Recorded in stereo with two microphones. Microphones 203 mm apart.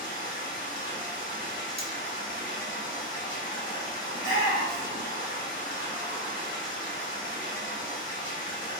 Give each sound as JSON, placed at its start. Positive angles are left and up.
{"t": 0.0, "sound": "running water", "side_deg": -40, "distance_m": 1.6}
{"t": 1.8, "sound": "cutlery clinking", "side_deg": -45, "distance_m": 0.7}
{"t": 4.1, "sound": "a shout", "side_deg": -55, "distance_m": 1.3}